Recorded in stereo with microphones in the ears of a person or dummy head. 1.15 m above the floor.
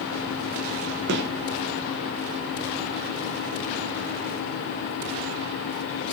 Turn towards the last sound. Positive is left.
turn(degrees=-60)  # may be behind; listen again after turning